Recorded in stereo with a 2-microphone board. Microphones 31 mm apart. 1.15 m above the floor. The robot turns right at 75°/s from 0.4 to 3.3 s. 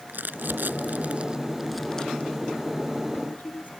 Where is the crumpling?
80° right; by 3.7 s 60° left (ahead or behind).